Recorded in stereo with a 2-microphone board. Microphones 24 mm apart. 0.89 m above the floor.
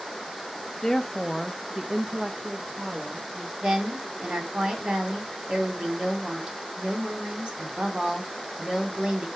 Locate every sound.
0.8 s a woman speaking: 25° left (ahead or behind), 0.7 m; by 3.5 s 45° right (ahead or behind), 1.6 m
3.6 s a woman speaking: 35° right (ahead or behind), 2 m